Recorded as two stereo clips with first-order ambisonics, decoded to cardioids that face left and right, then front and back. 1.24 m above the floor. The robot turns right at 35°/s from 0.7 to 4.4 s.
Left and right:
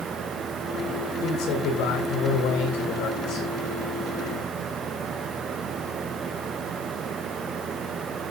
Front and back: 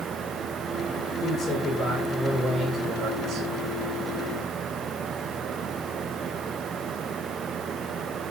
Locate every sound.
1.2 s a man speaking: 50° left, 10 m; by 3.5 s 130° left, 10 m